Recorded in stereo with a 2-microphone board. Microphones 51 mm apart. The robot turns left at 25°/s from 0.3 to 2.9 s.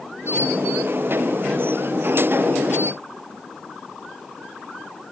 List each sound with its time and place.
Only background noise.